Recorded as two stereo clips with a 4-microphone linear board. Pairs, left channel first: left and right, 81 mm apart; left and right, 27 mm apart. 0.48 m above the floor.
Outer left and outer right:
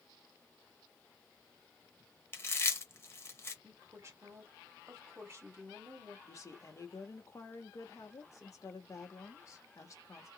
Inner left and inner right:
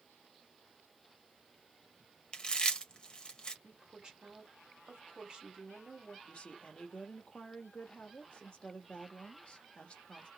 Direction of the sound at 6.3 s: 45° left (ahead or behind).